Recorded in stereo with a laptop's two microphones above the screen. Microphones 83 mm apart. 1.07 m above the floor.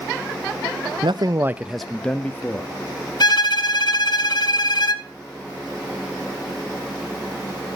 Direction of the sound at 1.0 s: 70° right (ahead or behind).